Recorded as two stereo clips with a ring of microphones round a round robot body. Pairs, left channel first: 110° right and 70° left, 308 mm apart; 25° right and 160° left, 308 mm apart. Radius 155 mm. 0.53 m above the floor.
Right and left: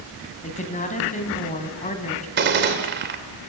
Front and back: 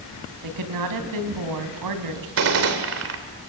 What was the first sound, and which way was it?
A woman speaking, straight behind.